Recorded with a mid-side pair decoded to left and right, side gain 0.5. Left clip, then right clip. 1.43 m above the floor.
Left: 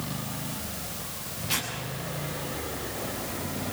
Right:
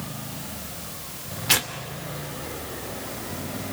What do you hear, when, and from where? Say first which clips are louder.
1.5 s tearing paper: right 7 dB; 70° right, 2.5 m